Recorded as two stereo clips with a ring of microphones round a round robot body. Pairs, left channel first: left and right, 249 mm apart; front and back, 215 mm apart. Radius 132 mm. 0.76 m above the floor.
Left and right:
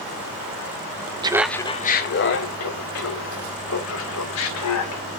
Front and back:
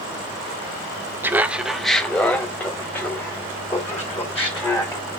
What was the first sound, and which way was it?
Laughter, 120° right.